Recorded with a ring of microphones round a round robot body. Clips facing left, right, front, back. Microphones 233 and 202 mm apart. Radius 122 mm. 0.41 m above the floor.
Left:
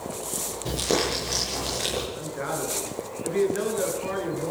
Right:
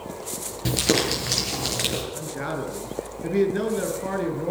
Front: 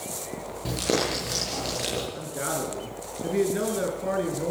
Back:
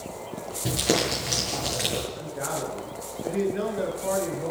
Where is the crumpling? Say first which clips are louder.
Right 3 dB, back 1 dB; 95° right, 9.5 m.